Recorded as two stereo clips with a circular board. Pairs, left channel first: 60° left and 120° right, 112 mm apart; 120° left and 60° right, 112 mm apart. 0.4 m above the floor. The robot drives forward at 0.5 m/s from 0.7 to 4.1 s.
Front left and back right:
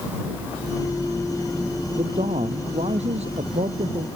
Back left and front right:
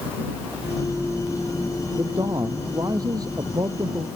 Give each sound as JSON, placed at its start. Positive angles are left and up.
{"t": 1.9, "sound": "a man speaking", "azimuth_deg": -115}